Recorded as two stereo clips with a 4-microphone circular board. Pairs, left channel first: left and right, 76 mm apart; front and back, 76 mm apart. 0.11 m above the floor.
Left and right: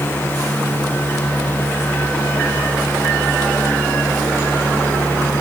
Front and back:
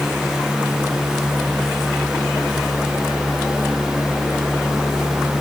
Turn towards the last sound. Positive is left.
No sound to turn to.